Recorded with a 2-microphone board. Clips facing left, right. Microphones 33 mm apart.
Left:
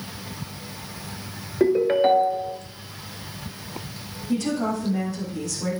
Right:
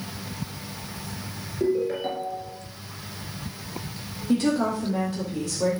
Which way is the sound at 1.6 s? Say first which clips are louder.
Left 6 dB; 50° left (ahead or behind).